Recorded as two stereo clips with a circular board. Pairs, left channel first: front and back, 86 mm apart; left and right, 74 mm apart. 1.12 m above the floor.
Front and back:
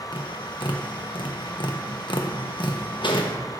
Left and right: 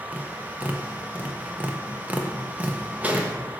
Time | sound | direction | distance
0.1 | tapping | 20° right | 1.0 m